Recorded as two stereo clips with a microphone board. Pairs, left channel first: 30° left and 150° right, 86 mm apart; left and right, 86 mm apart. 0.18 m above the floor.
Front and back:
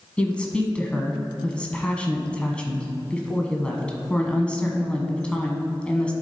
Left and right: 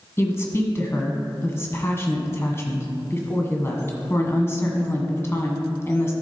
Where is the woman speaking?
95° left, 1.1 m.